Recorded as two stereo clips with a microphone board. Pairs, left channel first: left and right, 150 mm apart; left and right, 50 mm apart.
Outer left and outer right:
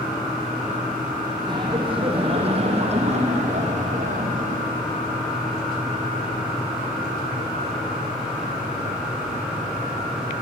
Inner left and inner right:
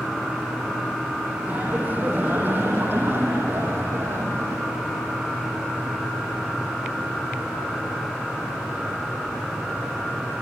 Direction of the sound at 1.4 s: 30° right (ahead or behind).